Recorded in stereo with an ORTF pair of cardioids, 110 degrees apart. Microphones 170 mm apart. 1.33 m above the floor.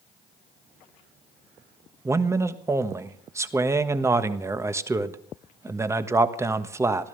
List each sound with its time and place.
2.0 s a man speaking: 15° right, 1.3 m